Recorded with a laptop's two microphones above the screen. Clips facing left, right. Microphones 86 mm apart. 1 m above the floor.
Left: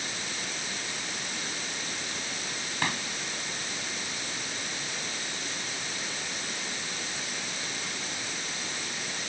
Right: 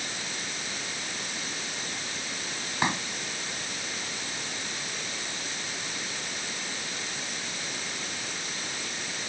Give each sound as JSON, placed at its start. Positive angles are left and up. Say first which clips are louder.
{"t": 2.8, "sound": "a pop", "louder": "right 4 dB", "side_deg": -20}